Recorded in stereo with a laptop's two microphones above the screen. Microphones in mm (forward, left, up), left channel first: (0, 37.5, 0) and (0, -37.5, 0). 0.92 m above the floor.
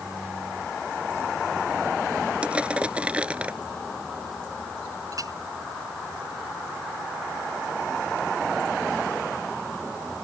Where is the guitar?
I don't hear a guitar.